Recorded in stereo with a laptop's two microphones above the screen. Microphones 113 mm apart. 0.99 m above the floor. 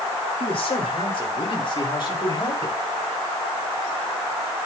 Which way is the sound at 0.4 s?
55° left (ahead or behind).